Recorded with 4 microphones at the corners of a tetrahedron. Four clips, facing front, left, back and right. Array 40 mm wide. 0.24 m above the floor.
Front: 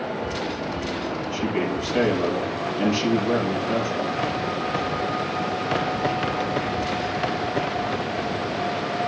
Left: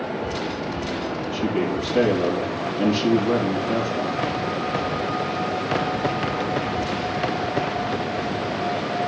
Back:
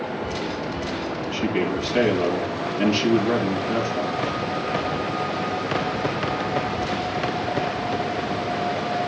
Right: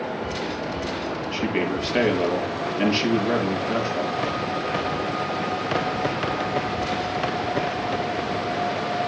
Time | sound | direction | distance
1.3 | a man speaking | 95° right | 5.5 m